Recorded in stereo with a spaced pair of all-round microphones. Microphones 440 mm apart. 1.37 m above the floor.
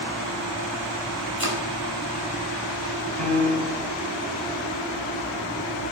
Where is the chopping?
55° right (ahead or behind), 4.5 m.